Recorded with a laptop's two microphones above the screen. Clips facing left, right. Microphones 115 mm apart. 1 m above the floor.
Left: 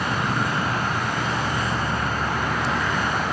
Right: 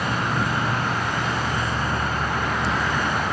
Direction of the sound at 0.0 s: 10° left (ahead or behind).